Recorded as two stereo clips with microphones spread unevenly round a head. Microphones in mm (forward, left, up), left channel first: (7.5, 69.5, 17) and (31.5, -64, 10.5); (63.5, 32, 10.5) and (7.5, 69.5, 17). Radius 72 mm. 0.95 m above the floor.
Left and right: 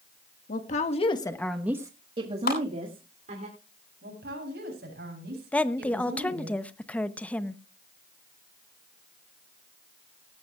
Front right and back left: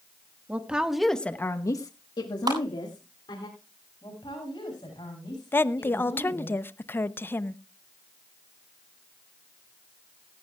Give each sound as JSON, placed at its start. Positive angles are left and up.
{"t": 0.5, "sound": "a woman speaking", "azimuth_deg": 75, "distance_m": 1.7}
{"t": 2.5, "sound": "a clap", "azimuth_deg": 130, "distance_m": 7.5}
{"t": 4.0, "sound": "a woman speaking", "azimuth_deg": -85, "distance_m": 7.5}
{"t": 5.5, "sound": "a woman speaking", "azimuth_deg": 20, "distance_m": 0.7}